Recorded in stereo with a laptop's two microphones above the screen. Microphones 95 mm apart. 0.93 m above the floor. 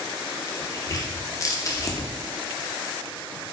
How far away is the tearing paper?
About 0.7 m.